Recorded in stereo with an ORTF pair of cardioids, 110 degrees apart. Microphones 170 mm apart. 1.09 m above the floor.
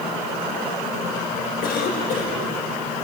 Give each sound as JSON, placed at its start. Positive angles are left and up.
{"t": 1.6, "sound": "a cough", "azimuth_deg": 70, "distance_m": 5.0}